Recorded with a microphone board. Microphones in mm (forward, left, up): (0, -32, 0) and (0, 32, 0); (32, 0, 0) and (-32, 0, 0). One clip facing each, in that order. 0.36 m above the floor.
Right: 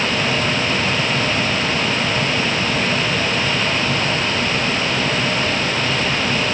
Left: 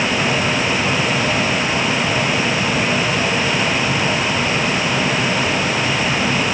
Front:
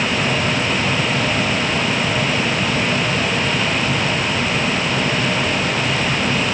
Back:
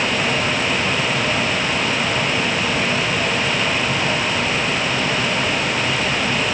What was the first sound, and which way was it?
Only background noise.